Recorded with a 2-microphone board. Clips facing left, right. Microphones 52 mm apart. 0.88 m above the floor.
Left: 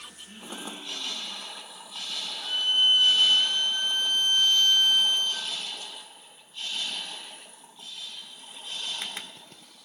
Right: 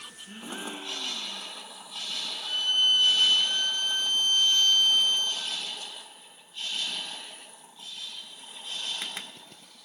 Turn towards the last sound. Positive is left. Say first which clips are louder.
# left 2 dB
turn(degrees=20)  # may be behind; listen again after turning